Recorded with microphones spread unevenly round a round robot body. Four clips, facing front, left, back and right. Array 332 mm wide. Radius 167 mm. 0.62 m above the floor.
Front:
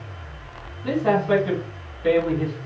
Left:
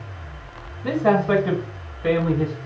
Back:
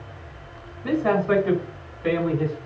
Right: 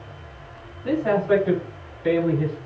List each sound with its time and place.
0.8 s a man speaking: 95° left, 4.5 m; by 2.6 s 85° left, 6.5 m